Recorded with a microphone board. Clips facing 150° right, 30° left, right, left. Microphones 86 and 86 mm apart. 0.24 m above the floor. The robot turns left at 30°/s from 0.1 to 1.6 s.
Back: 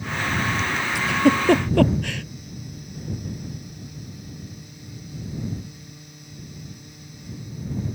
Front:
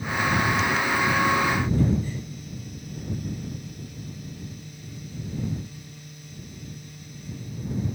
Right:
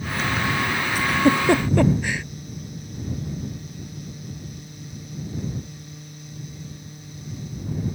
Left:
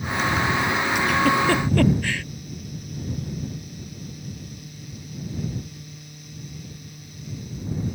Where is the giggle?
145° right; by 2.2 s 165° right.